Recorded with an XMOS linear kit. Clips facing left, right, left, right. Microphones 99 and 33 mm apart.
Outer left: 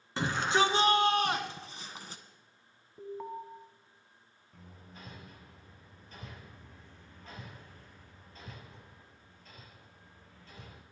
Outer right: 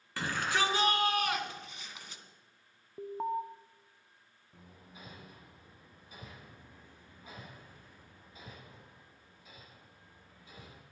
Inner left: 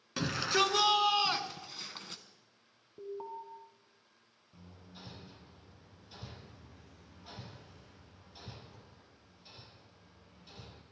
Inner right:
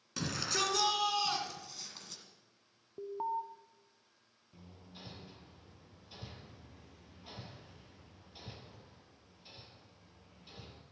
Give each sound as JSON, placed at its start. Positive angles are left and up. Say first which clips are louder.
{"t": 0.2, "sound": "a shout", "louder": "outer left 4 dB, inner left 5 dB", "side_deg": 20, "distance_m": 2.0}
{"t": 3.0, "sound": "an alarm", "louder": "outer right 6 dB, inner right 5 dB", "side_deg": -25, "distance_m": 0.9}
{"t": 4.5, "sound": "hammering", "louder": "outer left 2 dB, even", "side_deg": -10, "distance_m": 3.0}